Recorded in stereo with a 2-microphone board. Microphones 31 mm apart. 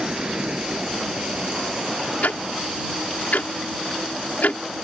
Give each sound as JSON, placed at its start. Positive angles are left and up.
{"t": 0.0, "sound": "a vehicle", "side_deg": -30}
{"t": 2.2, "sound": "ticking", "side_deg": 80}